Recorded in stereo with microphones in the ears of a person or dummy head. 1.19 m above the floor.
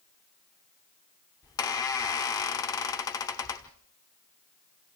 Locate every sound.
1.4 s a squeak: 25° left (ahead or behind), 1.1 m